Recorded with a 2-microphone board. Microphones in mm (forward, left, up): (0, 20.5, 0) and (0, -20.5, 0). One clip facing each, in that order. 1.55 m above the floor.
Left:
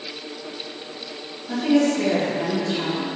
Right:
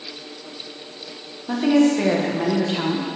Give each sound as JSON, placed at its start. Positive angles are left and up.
{"t": 1.5, "sound": "a woman speaking", "side_deg": -50, "distance_m": 1.5}